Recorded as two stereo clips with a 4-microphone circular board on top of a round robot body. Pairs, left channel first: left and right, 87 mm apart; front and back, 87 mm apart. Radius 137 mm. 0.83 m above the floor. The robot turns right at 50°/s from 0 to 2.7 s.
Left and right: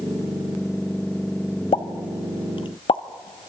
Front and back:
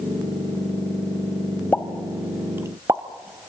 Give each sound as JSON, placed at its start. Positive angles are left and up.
{"t": 1.7, "sound": "a pop", "azimuth_deg": 70, "distance_m": 0.8}